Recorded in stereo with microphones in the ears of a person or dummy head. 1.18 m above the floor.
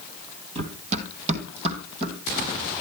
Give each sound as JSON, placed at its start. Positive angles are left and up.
{"t": 0.6, "sound": "running footsteps", "side_deg": -40, "distance_m": 1.6}